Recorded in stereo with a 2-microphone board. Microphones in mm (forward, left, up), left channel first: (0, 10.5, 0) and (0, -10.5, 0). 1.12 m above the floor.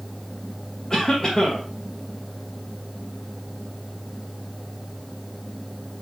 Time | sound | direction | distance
0.9 | a cough | 20° left (ahead or behind) | 1.4 m